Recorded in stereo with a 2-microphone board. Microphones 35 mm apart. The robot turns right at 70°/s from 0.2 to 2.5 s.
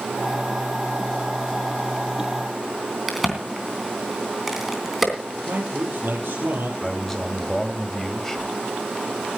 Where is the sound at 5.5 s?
65° right (ahead or behind), 4.5 m.